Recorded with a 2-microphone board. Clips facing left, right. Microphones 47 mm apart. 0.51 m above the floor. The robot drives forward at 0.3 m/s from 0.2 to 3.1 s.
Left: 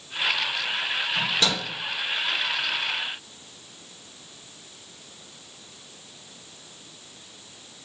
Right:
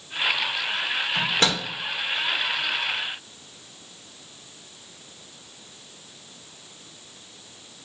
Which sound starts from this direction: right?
A microwave, at 1.1 s.